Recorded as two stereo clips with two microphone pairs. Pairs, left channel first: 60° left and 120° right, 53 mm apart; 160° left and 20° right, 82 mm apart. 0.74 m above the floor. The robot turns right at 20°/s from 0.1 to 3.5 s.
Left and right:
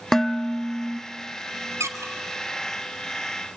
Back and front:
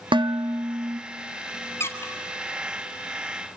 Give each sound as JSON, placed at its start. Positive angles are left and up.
{"t": 0.1, "sound": "dishes clattering", "azimuth_deg": -20, "distance_m": 0.7}
{"t": 1.8, "sound": "a squeak", "azimuth_deg": -140, "distance_m": 1.8}